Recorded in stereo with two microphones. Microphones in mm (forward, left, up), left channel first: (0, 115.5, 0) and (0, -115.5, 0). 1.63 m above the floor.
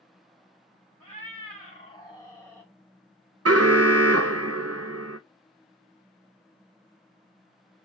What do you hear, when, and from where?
1.0 s a cat meowing: 30° left (ahead or behind), 1.9 m; by 2.7 s 5° left (ahead or behind), 1.4 m
3.5 s an alarm: 75° right (ahead or behind), 0.5 m